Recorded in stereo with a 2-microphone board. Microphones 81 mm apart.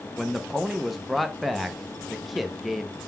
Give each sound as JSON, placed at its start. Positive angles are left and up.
{"t": 0.2, "sound": "a man speaking", "side_deg": 0, "distance_m": 0.6}